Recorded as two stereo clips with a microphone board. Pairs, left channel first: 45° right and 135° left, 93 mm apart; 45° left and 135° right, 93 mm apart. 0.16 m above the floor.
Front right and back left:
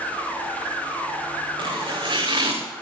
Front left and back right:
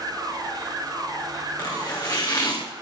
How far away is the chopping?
About 4.5 m.